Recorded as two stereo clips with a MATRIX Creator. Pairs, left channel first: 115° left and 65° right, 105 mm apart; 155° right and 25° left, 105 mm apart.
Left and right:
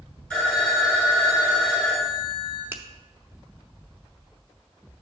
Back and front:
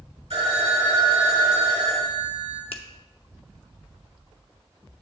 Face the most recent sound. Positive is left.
turn(degrees=-135)